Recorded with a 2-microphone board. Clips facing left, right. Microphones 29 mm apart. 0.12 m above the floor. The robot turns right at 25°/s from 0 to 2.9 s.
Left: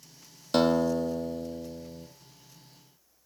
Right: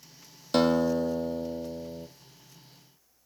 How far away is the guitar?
About 1.1 m.